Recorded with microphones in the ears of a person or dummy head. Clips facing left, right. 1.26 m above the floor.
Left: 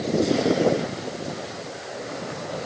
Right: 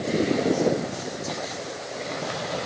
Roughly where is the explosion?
I don't hear an explosion.